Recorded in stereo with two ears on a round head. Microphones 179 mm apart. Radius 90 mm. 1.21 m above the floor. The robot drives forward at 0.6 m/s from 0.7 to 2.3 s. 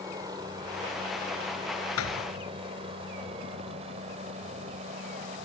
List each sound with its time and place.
0.0 s a helicopter: 20° right (ahead or behind); by 5.5 s 35° right (ahead or behind)
2.0 s a thud: 85° left